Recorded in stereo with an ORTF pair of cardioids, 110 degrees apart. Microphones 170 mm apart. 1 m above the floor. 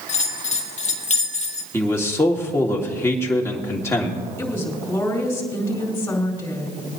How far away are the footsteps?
I don't hear footsteps.